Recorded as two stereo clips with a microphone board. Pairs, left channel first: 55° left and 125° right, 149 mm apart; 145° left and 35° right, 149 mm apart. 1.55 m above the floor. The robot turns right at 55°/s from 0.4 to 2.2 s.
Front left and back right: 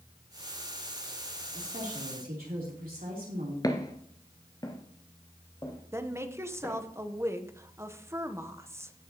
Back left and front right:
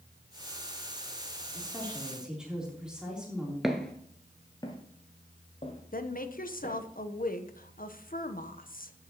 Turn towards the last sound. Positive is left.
turn(degrees=165)